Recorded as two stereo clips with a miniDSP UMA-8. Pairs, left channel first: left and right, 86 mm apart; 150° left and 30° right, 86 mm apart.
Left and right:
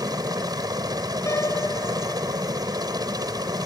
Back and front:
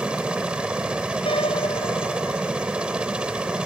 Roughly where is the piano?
Behind left.